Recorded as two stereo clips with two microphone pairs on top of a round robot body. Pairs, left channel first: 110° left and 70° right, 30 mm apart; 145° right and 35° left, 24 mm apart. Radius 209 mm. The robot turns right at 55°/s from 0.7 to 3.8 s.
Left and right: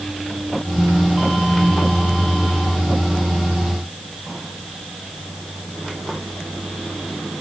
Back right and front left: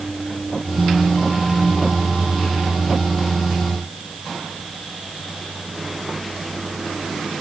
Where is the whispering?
No whispering in this recording.